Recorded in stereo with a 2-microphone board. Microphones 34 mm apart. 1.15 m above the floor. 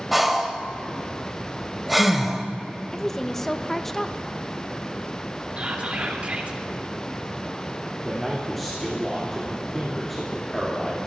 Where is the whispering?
40° right (ahead or behind), 3 m.